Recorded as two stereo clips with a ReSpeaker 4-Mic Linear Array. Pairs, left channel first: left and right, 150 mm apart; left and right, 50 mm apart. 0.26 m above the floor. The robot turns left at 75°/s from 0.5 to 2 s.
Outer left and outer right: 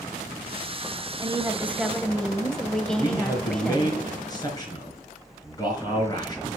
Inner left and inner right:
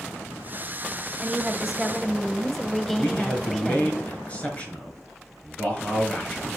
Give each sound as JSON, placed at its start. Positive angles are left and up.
{"t": 1.2, "sound": "a woman speaking", "azimuth_deg": -130, "distance_m": 1.1}
{"t": 3.0, "sound": "a man speaking", "side_deg": 25, "distance_m": 4.0}